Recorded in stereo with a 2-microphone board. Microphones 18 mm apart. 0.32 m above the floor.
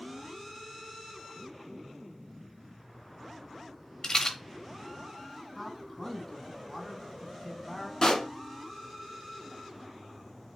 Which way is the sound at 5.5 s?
10° left (ahead or behind).